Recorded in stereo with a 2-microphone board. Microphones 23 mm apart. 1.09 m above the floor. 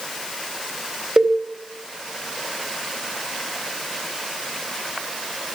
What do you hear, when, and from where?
1.2 s a cowbell: 35° right (ahead or behind), 2 m